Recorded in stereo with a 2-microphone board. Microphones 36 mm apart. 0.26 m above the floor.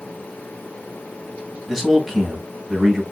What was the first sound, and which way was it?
A man speaking, centre (ahead or behind).